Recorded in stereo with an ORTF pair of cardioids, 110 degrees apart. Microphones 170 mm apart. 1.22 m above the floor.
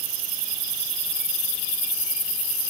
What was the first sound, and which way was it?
Only background noise.